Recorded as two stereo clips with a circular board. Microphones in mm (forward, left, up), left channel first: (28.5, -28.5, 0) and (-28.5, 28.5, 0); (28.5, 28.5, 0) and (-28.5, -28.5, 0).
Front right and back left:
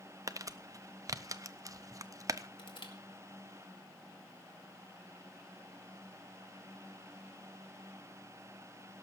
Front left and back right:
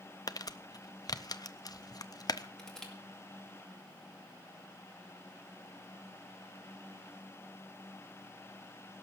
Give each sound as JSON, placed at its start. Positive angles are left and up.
{"t": 0.3, "sound": "crumpling", "azimuth_deg": 85, "distance_m": 0.6}
{"t": 2.6, "sound": "crushing", "azimuth_deg": -35, "distance_m": 2.0}